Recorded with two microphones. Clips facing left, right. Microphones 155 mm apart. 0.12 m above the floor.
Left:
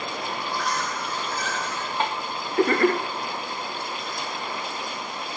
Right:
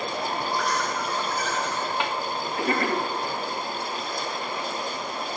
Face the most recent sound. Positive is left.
turn(degrees=35)  # may be behind; listen again after turning